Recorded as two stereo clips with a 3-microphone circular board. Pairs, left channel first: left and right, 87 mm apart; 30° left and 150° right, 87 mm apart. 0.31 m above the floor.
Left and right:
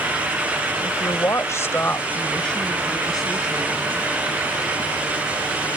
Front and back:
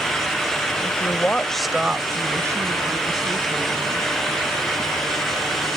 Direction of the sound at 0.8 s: 60° left.